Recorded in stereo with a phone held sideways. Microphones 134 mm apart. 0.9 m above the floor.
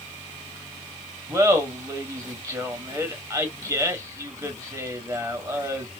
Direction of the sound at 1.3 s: 25° right (ahead or behind).